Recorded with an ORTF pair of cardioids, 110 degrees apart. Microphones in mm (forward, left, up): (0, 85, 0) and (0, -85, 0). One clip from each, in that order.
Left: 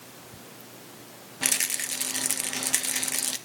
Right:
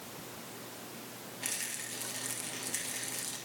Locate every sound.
1.4 s a rattle: 65° left, 1.7 m